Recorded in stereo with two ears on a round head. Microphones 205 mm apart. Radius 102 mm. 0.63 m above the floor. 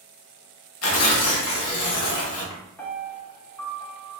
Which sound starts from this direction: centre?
A piano, at 2.8 s.